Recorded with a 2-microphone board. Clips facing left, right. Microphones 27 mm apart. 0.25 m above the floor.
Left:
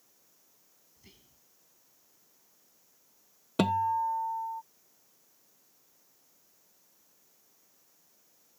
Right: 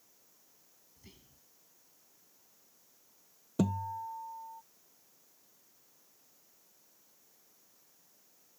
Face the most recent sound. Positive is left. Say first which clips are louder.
# left 7 dB
turn(degrees=65)  # may be behind; listen again after turning